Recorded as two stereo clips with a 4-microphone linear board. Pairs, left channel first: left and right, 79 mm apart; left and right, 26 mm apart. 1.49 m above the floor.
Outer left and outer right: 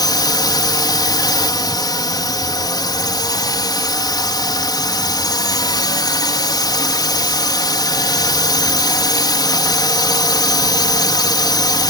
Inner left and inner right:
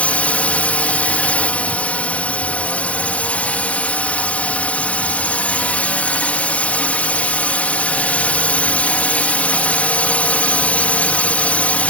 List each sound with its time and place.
0.0 s a drone: 60° left (ahead or behind)